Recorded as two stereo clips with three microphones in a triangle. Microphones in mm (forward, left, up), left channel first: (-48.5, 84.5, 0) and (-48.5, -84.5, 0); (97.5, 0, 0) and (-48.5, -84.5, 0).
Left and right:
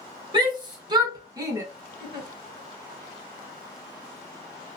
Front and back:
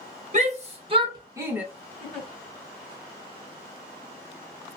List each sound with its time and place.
0.3 s a shout: 140° right, 1.1 m; by 1.6 s 85° right, 0.8 m
2.0 s a giggle: 55° right, 1.6 m